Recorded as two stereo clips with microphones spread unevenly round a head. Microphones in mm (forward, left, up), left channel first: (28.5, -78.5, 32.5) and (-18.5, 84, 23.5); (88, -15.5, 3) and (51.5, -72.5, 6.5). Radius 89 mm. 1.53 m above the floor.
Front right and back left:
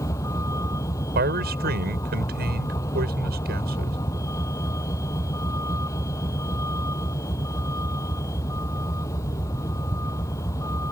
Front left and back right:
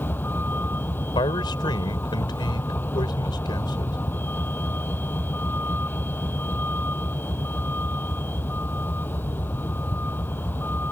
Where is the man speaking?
75° left.